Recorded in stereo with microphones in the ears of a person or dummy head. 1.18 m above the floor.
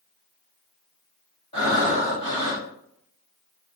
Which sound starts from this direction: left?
Breathing, at 1.5 s.